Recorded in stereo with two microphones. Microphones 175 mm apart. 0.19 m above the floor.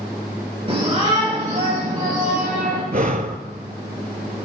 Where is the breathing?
50° right (ahead or behind), 0.6 m.